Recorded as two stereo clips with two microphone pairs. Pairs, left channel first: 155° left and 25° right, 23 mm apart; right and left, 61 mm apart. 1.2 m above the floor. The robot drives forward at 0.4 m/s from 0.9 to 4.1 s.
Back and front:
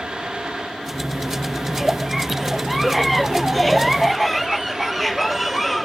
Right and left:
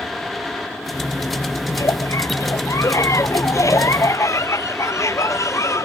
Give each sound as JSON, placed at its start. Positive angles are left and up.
{"t": 1.7, "sound": "a giggle", "azimuth_deg": -120}